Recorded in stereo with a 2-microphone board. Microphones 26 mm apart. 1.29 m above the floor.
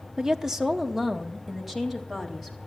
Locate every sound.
0.2 s a woman speaking: 30° right (ahead or behind), 0.7 m; by 2.6 s 5° right (ahead or behind), 3.5 m